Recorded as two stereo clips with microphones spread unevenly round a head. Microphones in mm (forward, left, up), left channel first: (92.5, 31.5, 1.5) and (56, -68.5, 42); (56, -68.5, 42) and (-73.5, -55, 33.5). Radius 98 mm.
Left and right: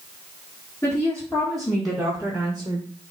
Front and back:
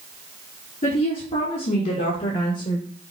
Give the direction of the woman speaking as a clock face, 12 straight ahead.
12 o'clock.